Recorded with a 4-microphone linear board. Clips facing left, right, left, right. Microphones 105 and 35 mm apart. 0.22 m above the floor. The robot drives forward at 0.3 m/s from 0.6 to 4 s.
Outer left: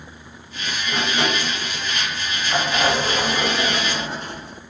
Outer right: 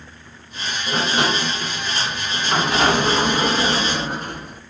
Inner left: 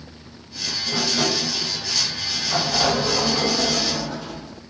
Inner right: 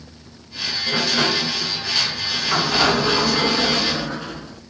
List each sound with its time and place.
0.9 s a sliding door: 45° right (ahead or behind), 0.8 m; by 4.6 s 50° right (ahead or behind), 0.8 m